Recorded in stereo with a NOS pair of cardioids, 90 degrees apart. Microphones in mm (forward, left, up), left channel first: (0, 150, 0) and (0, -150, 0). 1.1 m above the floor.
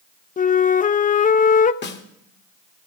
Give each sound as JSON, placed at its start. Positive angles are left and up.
{"t": 0.4, "sound": "a flute", "azimuth_deg": 25, "distance_m": 0.6}
{"t": 1.8, "sound": "a snare drum", "azimuth_deg": 40, "distance_m": 1.4}